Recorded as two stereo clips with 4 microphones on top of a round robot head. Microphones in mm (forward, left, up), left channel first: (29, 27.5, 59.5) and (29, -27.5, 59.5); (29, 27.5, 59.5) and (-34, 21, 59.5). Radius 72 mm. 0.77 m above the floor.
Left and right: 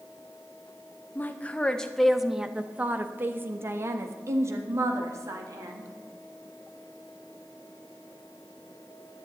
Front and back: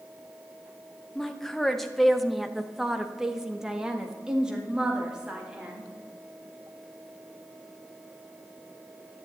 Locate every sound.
1.1 s a woman speaking: 80° left, 1.1 m; by 5.9 s 95° right, 2.5 m